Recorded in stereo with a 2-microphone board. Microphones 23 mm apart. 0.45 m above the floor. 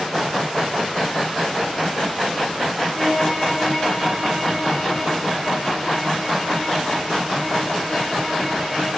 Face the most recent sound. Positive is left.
turn(degrees=-65)  # may be behind; listen again after turning